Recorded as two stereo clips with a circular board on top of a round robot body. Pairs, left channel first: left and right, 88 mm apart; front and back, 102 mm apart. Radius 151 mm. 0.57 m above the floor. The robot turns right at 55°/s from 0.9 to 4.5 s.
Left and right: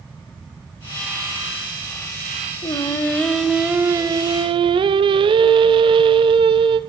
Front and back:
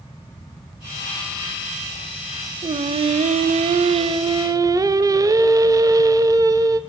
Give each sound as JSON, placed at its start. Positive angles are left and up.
{"t": 2.6, "sound": "singing", "azimuth_deg": 135, "distance_m": 1.0}